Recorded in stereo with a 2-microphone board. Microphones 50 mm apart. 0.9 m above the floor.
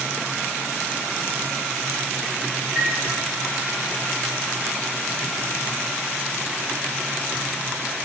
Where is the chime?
20° right (ahead or behind), 1.0 m.